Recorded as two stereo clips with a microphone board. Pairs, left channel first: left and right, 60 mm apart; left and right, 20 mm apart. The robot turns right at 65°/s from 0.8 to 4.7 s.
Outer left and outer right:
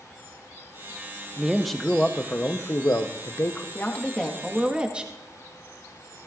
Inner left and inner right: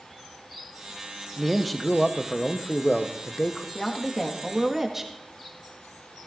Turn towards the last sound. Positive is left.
turn(degrees=-160)